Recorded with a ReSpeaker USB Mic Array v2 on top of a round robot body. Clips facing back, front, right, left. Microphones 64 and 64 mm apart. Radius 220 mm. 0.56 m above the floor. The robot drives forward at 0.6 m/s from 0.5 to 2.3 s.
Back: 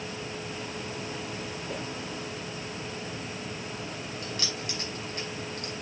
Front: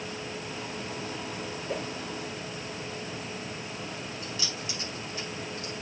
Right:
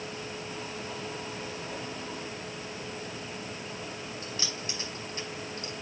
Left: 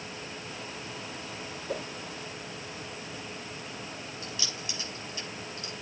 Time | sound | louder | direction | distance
1.7 | a whoosh | front 4 dB, left 3 dB | 75° left | 2.5 m
4.2 | keys jangling | back 1 dB, right 1 dB | 145° right | 4.5 m